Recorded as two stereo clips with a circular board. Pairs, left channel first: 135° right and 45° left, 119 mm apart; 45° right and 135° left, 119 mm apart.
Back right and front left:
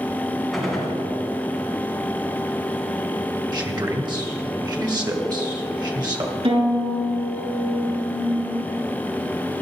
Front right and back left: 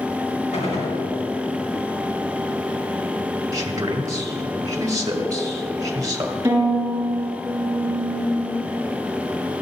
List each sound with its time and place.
0.5 s a gunshot: 45° right, 2.5 m
3.5 s a man speaking: 85° left, 1.6 m
6.4 s a violin: 65° left, 4 m